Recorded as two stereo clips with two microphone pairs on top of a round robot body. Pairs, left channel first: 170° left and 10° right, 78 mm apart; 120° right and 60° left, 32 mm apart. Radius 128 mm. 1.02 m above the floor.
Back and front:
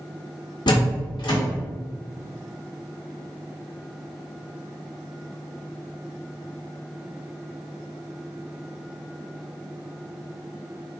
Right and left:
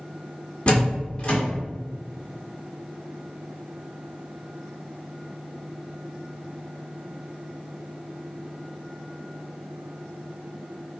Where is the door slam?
Straight behind, 1.4 m.